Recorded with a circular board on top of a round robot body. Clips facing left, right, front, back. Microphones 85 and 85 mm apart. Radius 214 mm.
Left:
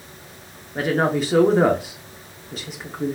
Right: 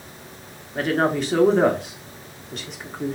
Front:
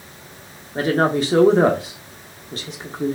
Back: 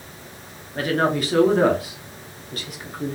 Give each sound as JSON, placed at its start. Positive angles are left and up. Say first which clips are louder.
{"t": 0.8, "sound": "a woman speaking", "louder": "left 1 dB, front 3 dB", "azimuth_deg": 10, "distance_m": 0.8}